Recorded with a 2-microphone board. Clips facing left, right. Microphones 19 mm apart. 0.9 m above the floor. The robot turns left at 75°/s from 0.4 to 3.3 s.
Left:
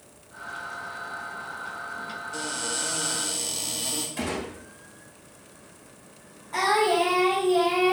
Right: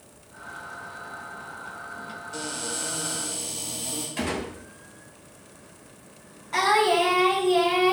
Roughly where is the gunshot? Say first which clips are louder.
Right 1 dB; right.